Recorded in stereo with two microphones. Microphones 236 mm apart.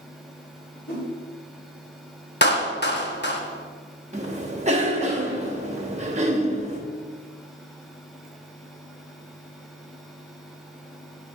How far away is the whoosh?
About 3 m.